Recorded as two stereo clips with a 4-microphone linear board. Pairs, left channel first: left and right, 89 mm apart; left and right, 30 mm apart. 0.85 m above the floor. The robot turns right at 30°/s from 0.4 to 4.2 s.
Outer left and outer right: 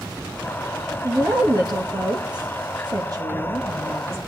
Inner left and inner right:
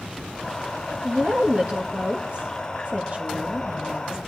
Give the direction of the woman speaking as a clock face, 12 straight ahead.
4 o'clock.